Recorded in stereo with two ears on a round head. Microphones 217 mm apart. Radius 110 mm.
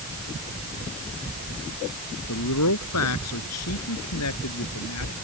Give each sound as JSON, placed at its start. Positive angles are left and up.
{"t": 2.3, "sound": "a man speaking", "side_deg": 65}